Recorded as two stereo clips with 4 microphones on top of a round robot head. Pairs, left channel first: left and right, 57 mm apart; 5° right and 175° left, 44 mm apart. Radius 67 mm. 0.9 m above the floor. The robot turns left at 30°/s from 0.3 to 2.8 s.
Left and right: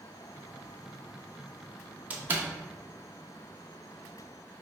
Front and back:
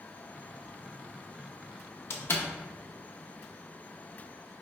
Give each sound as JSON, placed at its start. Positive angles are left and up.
{"t": 2.1, "sound": "a door slam", "azimuth_deg": -25, "distance_m": 0.6}